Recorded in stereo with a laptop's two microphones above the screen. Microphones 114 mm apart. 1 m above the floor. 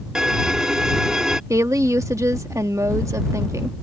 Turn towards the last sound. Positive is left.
turn(degrees=-30)  # may be behind; listen again after turning